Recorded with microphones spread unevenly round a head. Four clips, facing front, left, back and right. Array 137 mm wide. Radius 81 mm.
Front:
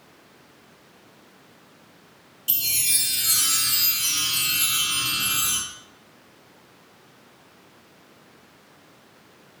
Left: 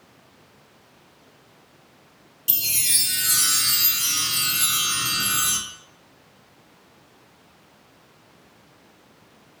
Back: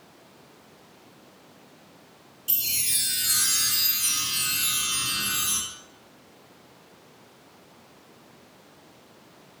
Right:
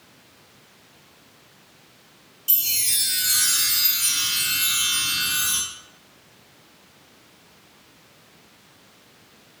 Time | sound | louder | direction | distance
2.5 | a chime | left 2 dB, front 4 dB | 70° left | 1.8 m